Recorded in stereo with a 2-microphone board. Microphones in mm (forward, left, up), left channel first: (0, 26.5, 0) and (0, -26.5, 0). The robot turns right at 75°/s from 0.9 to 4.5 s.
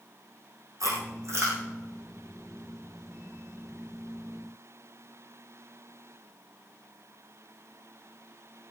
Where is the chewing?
85° right, 6 m; by 1.6 s 45° right (ahead or behind), 6 m.